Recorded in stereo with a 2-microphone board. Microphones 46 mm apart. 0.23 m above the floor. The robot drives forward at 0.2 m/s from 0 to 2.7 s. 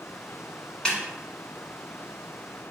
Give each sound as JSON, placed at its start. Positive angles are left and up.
{"t": 0.8, "sound": "a snare drum", "side_deg": 15, "distance_m": 1.4}